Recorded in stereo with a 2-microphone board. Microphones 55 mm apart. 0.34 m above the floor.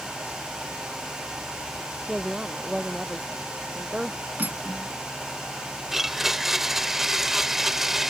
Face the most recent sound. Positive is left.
turn(degrees=-10)  # may be behind; listen again after turning